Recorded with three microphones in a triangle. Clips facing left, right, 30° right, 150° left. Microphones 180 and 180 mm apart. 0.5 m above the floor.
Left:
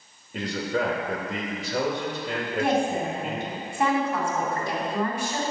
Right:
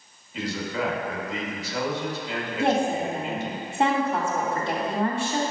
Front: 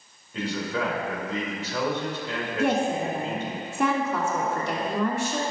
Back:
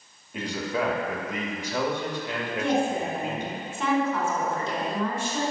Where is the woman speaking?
25° right, 3 m.